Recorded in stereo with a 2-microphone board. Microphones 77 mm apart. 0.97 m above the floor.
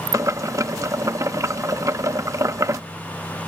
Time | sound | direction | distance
0.1 | boiling | 45° right (ahead or behind) | ?